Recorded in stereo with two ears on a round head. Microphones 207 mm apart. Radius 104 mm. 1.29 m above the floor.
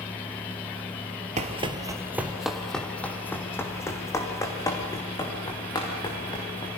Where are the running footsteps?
30° right (ahead or behind), 1.5 m; by 6.7 s 20° left (ahead or behind), 8 m.